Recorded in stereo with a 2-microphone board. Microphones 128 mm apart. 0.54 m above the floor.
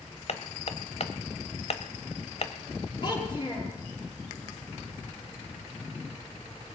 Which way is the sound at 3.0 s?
40° left (ahead or behind).